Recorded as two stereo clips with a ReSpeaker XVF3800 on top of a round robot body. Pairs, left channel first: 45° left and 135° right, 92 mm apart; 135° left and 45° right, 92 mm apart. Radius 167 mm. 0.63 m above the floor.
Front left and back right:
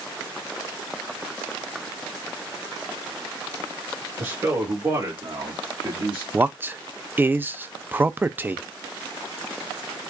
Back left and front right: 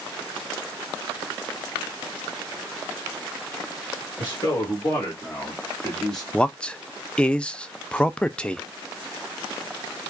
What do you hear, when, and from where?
4.2 s a man speaking: 175° left, 1.6 m; by 6.2 s 140° right, 1.9 m
6.3 s a man speaking: 160° right, 0.5 m